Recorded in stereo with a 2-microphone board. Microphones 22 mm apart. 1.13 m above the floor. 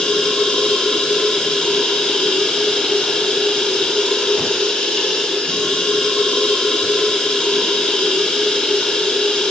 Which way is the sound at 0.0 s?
80° left.